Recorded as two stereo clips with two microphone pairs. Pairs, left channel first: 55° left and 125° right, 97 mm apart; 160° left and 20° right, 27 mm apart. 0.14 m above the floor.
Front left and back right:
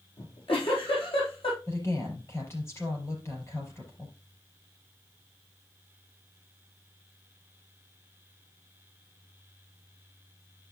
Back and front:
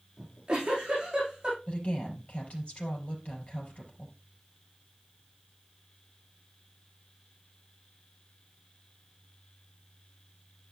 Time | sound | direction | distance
0.2 | a giggle | 35° left | 5 m
1.7 | a woman speaking | 120° left | 4.5 m